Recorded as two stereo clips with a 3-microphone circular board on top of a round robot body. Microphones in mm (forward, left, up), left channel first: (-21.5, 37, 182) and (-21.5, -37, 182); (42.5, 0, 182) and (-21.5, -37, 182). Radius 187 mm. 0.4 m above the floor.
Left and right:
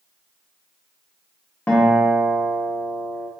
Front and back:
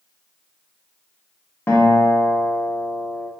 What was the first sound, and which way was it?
A guitar, 40° left.